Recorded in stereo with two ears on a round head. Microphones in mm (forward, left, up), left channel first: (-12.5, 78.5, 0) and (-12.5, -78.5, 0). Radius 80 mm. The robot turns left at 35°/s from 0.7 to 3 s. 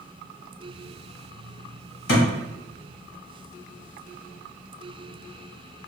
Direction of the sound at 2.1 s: 65° left (ahead or behind).